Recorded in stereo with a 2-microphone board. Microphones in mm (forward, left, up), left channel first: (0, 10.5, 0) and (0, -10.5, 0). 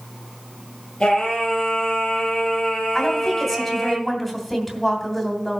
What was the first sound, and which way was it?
Singing, 50° left (ahead or behind).